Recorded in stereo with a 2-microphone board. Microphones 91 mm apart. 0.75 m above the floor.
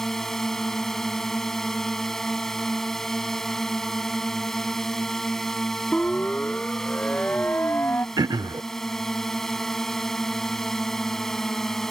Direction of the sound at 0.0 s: 5° left (ahead or behind).